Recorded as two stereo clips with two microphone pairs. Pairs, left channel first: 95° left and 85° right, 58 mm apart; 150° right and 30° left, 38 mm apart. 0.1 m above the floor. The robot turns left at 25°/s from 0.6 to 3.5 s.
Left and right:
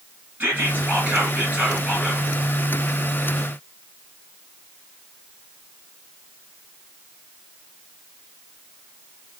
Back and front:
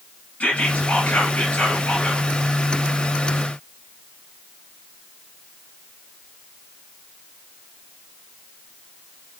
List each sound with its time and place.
0.4 s whispering: 135° right, 2.5 m; by 2.2 s 175° right, 2.5 m